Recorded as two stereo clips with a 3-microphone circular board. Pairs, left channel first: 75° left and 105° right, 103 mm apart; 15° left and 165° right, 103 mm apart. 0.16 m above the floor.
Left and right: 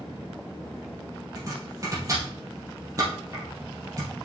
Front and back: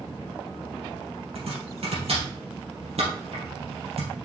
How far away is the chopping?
About 3 m.